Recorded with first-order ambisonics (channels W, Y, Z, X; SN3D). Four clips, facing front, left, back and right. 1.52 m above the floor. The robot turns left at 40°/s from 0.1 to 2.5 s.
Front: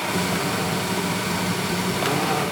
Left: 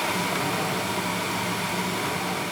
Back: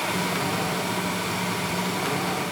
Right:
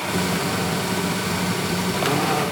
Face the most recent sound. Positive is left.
No sound to turn to.